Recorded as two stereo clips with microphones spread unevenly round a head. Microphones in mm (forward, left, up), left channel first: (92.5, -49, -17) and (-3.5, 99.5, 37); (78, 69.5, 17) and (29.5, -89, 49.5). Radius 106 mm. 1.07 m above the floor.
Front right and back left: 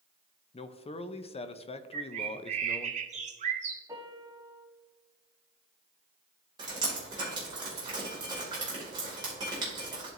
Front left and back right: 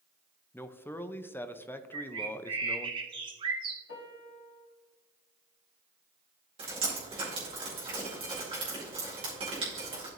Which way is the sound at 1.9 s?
175° right.